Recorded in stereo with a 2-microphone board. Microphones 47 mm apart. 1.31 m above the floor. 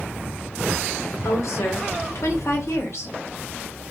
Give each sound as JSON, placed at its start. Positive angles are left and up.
{"t": 1.2, "sound": "a woman speaking", "side_deg": 75, "distance_m": 0.9}